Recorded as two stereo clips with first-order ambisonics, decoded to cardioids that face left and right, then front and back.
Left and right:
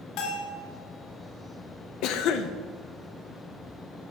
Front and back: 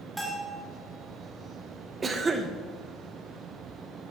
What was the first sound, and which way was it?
A bell, 95° left.